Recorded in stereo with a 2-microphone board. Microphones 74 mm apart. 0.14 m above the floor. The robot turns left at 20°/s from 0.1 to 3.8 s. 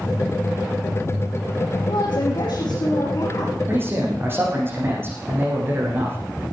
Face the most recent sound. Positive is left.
turn(degrees=-30)  # may be behind; listen again after turning